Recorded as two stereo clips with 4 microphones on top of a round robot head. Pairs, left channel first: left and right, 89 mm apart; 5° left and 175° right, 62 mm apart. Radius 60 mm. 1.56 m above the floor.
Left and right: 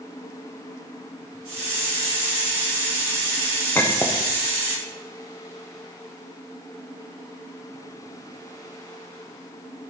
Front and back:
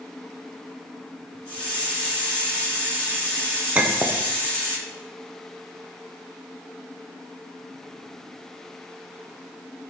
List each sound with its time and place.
1.4 s a hiss: 70° right, 3 m
3.8 s a clink: 150° left, 0.5 m